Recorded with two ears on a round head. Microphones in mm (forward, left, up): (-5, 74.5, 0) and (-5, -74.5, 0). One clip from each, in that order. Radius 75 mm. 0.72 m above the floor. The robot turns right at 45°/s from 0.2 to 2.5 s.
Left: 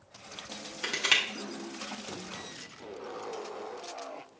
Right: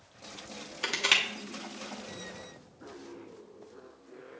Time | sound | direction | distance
0.8 | crushing | 15° right (ahead or behind) | 0.7 m